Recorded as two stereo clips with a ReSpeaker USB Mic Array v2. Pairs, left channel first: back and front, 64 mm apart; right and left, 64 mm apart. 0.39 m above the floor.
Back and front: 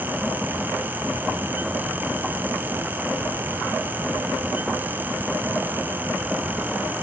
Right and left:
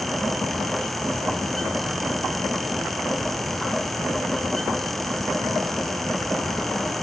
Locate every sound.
Only background noise.